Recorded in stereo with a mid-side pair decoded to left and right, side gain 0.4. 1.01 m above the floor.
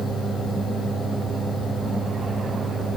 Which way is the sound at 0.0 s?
25° left.